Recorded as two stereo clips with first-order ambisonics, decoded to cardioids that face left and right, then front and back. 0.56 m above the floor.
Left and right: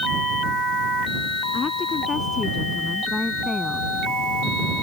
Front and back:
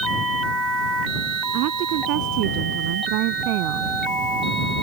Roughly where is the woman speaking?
Behind left.